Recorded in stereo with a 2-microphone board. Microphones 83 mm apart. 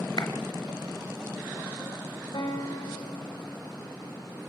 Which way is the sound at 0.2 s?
55° left (ahead or behind).